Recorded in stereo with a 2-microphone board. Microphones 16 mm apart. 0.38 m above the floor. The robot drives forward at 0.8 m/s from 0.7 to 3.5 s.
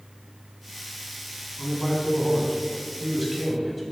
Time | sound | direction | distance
1.6 | a man speaking | 5° left (ahead or behind) | 4.5 m